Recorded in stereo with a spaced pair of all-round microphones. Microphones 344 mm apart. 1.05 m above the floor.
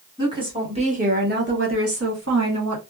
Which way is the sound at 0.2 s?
10° right (ahead or behind).